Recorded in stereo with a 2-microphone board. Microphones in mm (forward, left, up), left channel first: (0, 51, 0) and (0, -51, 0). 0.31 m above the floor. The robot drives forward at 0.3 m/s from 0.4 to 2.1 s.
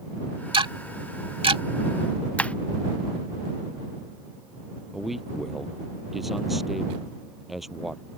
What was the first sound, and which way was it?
Ticking, 55° right (ahead or behind).